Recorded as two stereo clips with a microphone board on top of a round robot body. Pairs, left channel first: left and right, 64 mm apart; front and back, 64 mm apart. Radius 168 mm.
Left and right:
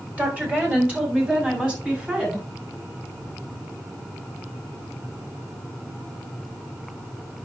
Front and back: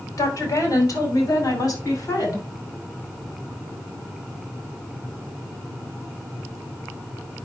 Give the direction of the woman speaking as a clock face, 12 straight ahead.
1 o'clock.